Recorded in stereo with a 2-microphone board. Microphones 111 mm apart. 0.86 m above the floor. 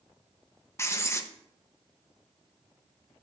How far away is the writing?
About 0.9 m.